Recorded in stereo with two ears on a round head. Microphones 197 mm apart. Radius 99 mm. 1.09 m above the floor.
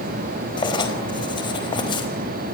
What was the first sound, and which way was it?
Writing, 20° left (ahead or behind).